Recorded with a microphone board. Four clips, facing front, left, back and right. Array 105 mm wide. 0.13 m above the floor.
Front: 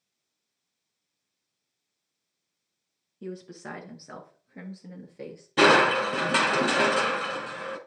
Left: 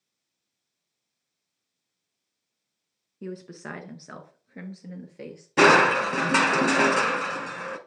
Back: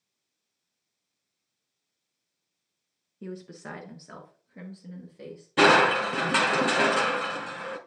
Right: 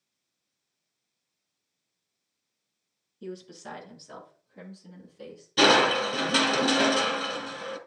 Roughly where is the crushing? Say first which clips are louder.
Left 3 dB, even; left.